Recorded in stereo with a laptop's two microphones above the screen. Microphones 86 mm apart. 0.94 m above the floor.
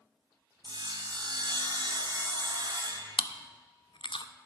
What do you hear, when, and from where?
0.6 s sawing: 55° right (ahead or behind), 1.7 m
3.2 s chewing: 70° left (ahead or behind), 0.5 m